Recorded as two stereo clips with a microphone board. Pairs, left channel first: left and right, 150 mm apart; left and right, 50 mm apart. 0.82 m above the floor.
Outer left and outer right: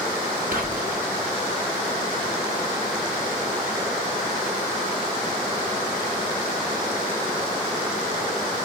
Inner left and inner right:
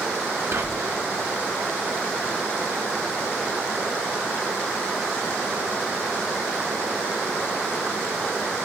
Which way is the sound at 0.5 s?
70° right (ahead or behind).